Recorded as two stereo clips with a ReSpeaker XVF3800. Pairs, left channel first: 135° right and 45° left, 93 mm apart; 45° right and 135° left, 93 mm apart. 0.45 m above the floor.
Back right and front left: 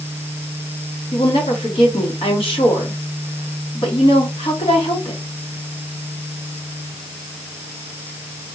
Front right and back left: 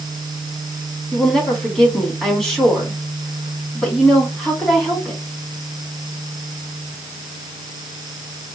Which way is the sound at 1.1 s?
130° right.